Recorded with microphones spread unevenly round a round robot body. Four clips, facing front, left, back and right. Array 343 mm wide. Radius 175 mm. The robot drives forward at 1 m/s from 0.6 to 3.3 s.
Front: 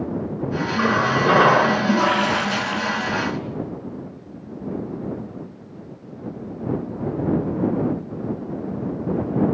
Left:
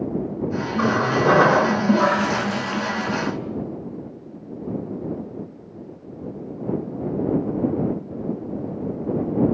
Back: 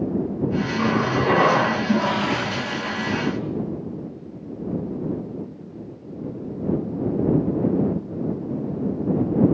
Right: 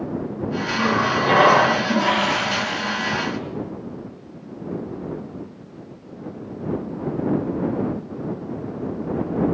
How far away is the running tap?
About 7 m.